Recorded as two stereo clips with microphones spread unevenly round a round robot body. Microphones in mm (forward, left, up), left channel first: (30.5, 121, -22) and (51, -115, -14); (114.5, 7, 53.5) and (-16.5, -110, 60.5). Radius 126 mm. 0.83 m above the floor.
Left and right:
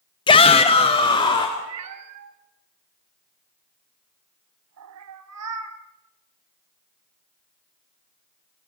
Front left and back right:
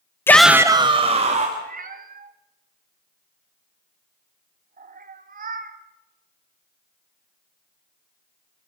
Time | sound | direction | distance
0.3 | a shout | 85° left | 0.7 m
1.6 | a cat meowing | 100° right | 1.6 m